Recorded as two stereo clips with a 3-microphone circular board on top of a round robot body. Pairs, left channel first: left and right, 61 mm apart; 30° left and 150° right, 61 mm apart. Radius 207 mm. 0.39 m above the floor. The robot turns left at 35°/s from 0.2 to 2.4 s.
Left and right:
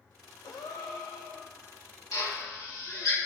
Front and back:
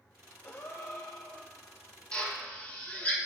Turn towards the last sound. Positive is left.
turn(degrees=90)